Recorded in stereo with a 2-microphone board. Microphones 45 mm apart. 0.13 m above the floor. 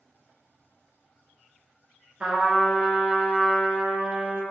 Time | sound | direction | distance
2.2 | a trumpet | 30° right (ahead or behind) | 0.6 m